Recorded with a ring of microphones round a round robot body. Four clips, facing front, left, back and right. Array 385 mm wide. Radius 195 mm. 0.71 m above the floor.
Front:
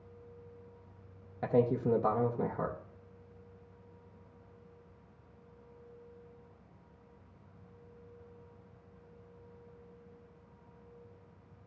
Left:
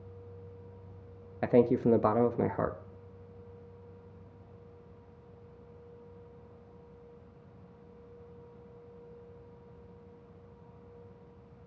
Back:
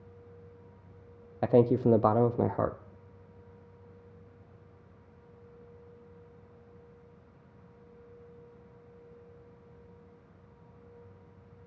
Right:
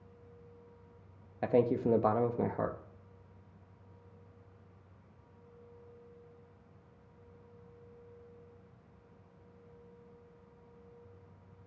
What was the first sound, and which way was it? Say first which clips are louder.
A man speaking: left 4 dB, back 6 dB; 155° left.